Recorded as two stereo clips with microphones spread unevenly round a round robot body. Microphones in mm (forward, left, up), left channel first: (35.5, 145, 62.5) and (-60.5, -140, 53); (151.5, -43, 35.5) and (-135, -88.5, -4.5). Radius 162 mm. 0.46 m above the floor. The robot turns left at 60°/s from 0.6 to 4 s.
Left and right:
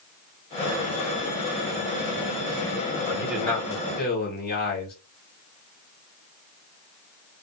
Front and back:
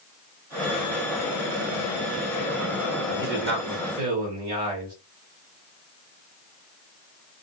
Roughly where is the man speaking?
Behind.